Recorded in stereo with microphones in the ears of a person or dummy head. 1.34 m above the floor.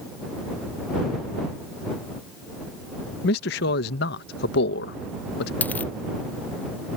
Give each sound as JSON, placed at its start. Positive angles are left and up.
{"t": 3.2, "sound": "a man speaking", "side_deg": 65}
{"t": 5.6, "sound": "a dropped coin", "side_deg": 5}